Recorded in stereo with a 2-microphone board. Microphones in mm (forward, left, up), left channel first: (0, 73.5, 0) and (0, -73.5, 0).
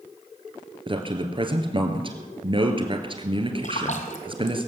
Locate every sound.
0.9 s a man speaking: 35° right (ahead or behind), 1.9 m
3.6 s a splash: 55° left (ahead or behind), 1.8 m